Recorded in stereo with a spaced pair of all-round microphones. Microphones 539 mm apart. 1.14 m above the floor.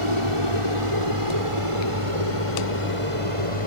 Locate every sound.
0.0 s an aircraft: 65° right (ahead or behind); by 3.7 s 70° right (ahead or behind)